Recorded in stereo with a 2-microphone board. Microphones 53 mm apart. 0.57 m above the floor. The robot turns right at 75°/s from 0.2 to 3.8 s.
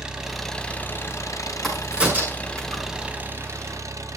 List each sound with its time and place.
0.0 s an engine running: 15° right, 1.6 m; by 4.2 s 105° right, 1.6 m
1.6 s a crack: 5° left (ahead or behind), 5.5 m; by 2.8 s 80° right, 5.5 m